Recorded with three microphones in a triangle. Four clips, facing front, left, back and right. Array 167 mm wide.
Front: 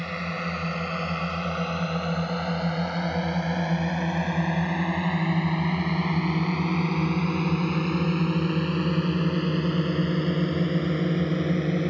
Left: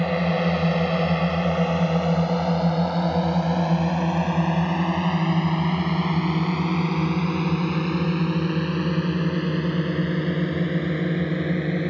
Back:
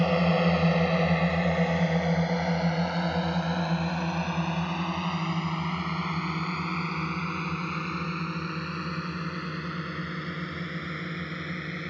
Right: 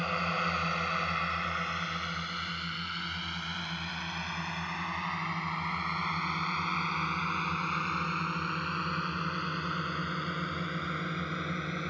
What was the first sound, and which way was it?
A drone, 130° left.